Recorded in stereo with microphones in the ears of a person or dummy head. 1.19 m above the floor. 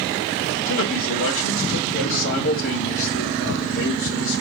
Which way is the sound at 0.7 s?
75° left (ahead or behind).